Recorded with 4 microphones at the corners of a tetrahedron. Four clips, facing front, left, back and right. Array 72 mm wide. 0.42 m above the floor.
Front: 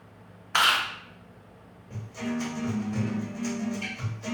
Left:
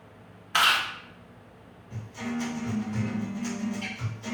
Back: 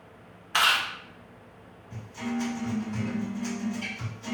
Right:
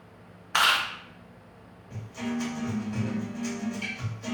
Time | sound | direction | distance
0.5 | chewing | 45° right | 0.7 m
1.9 | a guitar | 40° right | 1.9 m